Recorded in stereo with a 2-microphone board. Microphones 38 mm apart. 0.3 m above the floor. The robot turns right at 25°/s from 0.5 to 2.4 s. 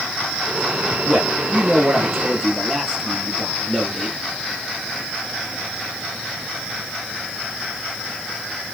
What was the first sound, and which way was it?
A man speaking, 35° right.